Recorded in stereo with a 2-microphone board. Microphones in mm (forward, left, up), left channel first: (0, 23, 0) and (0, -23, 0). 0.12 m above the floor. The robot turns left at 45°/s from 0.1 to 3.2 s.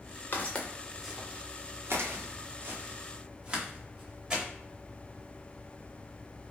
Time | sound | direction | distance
0.3 | footsteps | 45° left (ahead or behind) | 1.2 m